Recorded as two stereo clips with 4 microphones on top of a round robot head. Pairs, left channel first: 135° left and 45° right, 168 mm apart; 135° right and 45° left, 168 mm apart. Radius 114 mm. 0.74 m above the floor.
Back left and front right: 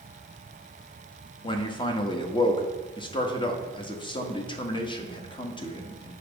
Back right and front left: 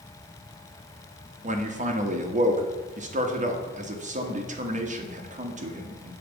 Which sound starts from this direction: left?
A man speaking, at 1.4 s.